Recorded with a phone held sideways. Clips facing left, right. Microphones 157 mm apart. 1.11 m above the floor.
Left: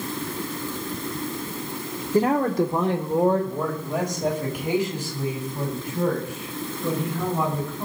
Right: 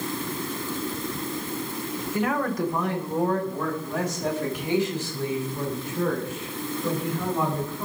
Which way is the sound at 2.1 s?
35° left (ahead or behind).